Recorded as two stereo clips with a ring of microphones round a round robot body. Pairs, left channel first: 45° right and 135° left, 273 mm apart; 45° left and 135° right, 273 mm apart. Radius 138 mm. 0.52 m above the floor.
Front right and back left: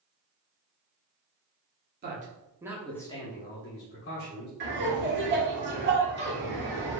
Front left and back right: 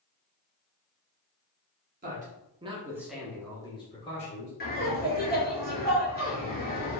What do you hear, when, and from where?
2.0 s a man speaking: straight behind, 1.2 m; by 4.5 s 15° right, 1.6 m
4.6 s laughter: 95° left, 1.7 m